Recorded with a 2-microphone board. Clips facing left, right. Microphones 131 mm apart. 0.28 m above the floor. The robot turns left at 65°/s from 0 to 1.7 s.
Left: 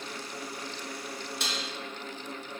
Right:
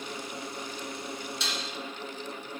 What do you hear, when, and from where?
1.4 s dishes clattering: 60° left (ahead or behind), 2.0 m; by 1.6 s 45° left (ahead or behind), 2.0 m